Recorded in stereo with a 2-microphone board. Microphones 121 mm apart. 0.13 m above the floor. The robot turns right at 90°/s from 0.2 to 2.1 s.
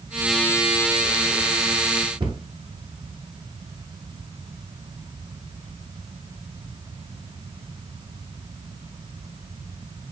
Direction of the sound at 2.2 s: 40° right (ahead or behind).